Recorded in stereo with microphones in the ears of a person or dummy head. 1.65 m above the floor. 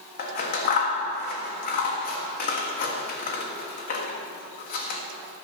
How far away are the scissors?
About 1.4 m.